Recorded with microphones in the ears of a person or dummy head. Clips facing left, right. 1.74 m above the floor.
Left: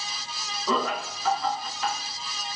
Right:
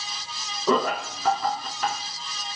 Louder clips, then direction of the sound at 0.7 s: Right 4 dB; 40° right (ahead or behind).